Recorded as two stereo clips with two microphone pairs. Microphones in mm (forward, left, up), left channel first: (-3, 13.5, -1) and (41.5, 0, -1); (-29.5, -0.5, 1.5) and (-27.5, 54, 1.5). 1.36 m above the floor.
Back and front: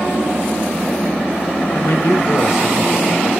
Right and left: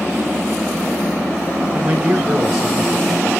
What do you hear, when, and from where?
1.7 s a man speaking: 160° left, 6.5 m; by 3.3 s 175° left, 5 m